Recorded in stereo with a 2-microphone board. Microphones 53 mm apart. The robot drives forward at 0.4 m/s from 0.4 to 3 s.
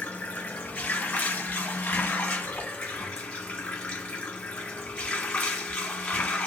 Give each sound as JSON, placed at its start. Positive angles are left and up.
{"t": 0.0, "sound": "running water", "side_deg": 25, "distance_m": 0.9}